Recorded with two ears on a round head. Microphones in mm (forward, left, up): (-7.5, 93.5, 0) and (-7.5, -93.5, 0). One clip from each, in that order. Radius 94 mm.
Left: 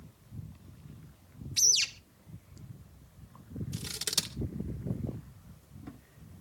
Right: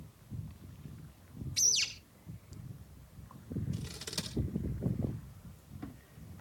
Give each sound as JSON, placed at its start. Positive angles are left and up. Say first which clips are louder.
{"t": 1.6, "sound": "a bird", "louder": "left 4 dB", "side_deg": 20, "distance_m": 1.8}
{"t": 3.7, "sound": "scissors", "louder": "left 11 dB", "side_deg": 55, "distance_m": 2.5}